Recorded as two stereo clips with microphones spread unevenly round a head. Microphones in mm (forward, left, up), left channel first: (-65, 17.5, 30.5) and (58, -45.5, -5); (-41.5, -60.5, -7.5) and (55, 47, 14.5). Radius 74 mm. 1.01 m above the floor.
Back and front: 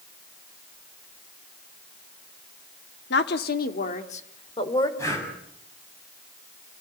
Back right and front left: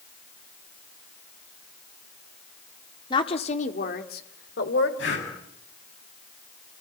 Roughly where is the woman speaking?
Behind.